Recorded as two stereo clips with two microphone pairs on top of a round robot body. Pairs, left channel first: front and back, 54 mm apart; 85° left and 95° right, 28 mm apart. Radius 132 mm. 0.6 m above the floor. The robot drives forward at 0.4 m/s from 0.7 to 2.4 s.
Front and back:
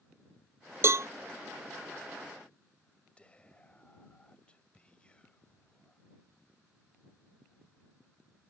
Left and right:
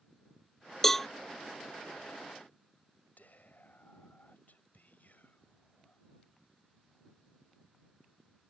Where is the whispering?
75° left.